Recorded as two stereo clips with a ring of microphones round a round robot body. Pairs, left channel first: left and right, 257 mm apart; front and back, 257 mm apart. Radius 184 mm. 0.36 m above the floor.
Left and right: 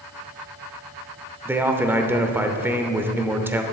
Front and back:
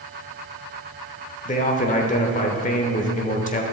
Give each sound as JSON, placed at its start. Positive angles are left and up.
{"t": 1.4, "sound": "a man speaking", "azimuth_deg": -15, "distance_m": 0.9}